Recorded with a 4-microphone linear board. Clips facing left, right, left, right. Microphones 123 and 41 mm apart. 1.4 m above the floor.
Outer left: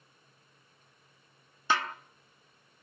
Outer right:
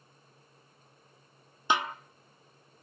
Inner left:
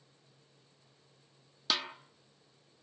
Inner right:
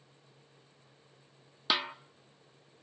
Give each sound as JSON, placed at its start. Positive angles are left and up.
{"t": 1.7, "sound": "a snare drum", "side_deg": -15, "distance_m": 0.9}